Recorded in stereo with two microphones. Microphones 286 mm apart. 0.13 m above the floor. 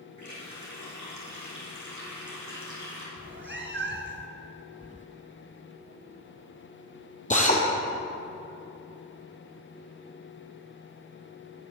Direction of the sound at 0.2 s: 80° left.